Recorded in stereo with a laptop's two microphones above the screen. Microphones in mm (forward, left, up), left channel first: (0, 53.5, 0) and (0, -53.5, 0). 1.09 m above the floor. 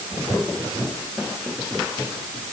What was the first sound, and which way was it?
Only background noise.